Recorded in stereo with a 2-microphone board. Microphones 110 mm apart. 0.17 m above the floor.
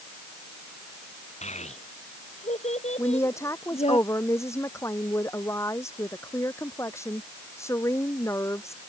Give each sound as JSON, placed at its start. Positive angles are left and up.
{"t": 1.4, "sound": "a child speaking", "side_deg": 80}
{"t": 3.0, "sound": "a woman speaking", "side_deg": 25}